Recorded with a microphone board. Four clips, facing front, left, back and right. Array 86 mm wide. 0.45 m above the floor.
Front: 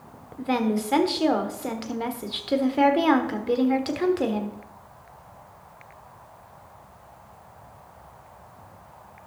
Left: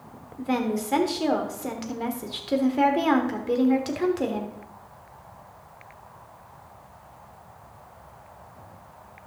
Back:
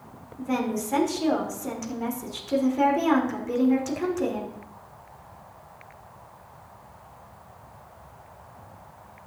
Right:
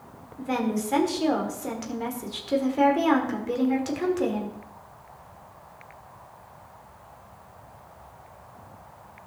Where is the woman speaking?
10° left, 1.3 m.